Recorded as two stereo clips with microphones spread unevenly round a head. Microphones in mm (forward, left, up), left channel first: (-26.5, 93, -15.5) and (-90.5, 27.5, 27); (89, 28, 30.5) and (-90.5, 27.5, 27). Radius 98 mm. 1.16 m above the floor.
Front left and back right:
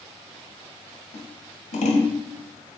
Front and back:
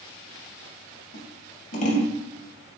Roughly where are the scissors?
Ahead left.